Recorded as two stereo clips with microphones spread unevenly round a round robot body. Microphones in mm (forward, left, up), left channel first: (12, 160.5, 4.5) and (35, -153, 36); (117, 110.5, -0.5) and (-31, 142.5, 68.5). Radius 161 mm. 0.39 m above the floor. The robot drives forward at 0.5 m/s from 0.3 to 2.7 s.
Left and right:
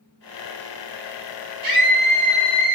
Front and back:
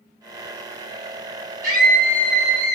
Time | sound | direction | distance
1.6 | a scream | 105° right | 2.0 m